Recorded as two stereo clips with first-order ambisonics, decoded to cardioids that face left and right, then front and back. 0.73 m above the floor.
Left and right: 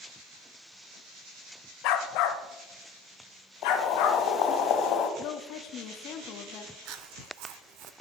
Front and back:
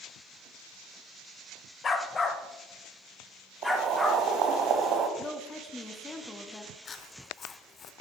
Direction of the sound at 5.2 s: 75° left.